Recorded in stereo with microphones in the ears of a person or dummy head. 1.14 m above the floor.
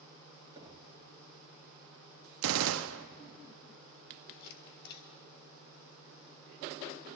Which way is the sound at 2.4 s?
80° right.